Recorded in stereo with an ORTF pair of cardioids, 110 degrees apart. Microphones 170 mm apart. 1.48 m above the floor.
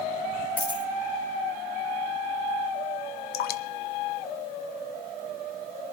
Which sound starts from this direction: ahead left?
Dripping, at 3.3 s.